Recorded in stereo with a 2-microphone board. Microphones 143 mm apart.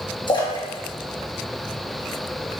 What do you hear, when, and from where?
0.3 s a splash: 30° left (ahead or behind), 1.2 m